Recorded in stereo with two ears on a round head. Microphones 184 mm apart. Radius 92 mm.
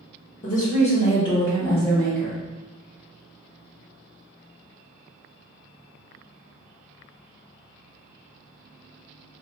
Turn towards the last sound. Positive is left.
turn(degrees=5)  # may be behind; listen again after turning